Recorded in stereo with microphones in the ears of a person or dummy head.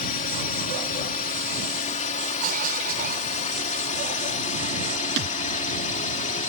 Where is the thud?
65° right (ahead or behind).